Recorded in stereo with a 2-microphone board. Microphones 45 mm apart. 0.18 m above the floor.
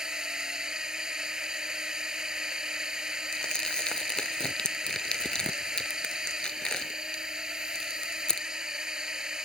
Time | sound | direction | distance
0.0 | a drone | 15° right (ahead or behind) | ?
3.3 | crumpling | 20° left (ahead or behind) | ?